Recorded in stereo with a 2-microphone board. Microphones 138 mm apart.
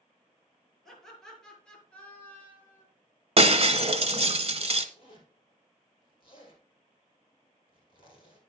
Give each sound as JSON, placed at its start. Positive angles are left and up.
{"t": 0.8, "sound": "laughter", "side_deg": 0, "distance_m": 5.5}
{"t": 3.4, "sound": "breaking glass", "side_deg": -50, "distance_m": 0.9}
{"t": 5.0, "sound": "a zipper", "side_deg": 40, "distance_m": 2.5}